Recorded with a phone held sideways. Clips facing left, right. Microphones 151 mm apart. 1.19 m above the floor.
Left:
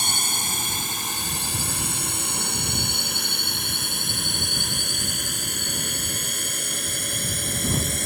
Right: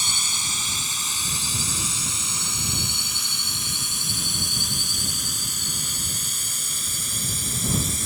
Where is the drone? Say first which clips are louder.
Left 5 dB; 55° left (ahead or behind); by 8.1 s 60° left (ahead or behind).